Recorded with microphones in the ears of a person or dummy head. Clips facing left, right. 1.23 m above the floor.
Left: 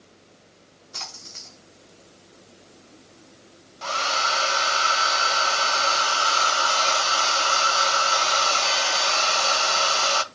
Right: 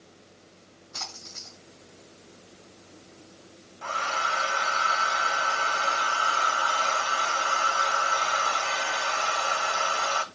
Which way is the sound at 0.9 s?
40° left (ahead or behind).